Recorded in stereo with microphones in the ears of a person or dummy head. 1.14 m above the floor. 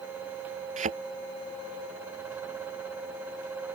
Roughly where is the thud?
Right.